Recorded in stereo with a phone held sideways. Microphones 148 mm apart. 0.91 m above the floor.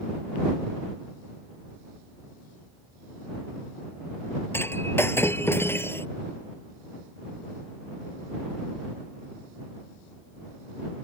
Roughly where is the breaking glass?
Centre.